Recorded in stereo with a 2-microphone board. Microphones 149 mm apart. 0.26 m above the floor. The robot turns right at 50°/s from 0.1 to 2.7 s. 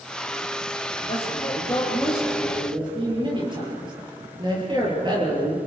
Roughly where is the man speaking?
Behind left.